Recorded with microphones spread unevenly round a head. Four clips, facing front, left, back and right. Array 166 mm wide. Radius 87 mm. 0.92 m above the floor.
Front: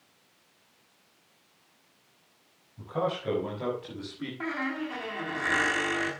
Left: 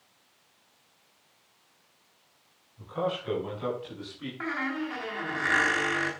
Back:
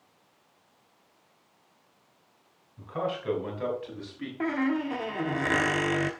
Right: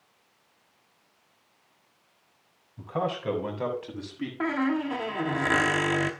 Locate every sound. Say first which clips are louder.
2.8 s a man speaking: right 1 dB, front 1 dB; 90° right, 6.5 m; by 4.3 s 95° right, 7 m
4.4 s a squeak: right 6 dB, back 6 dB; 130° right, 1.0 m